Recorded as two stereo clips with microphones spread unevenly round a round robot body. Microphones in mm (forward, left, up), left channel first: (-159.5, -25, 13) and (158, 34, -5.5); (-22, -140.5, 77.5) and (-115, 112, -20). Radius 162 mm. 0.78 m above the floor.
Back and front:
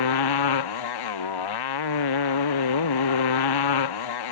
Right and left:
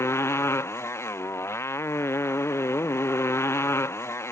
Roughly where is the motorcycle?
Behind right.